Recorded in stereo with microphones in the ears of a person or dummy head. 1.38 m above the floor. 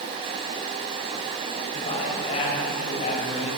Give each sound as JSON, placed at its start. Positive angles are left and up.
{"t": 1.7, "sound": "a man speaking", "side_deg": 40, "distance_m": 8.0}